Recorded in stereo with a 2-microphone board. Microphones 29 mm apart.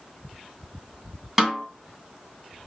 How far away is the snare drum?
About 2 m.